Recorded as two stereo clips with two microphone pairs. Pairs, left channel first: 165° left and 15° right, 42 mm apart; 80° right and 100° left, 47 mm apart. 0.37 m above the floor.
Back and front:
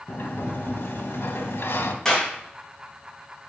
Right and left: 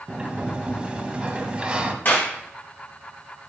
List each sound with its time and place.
0.1 s a sliding door: 170° left, 0.9 m
2.0 s a clap: 125° right, 3 m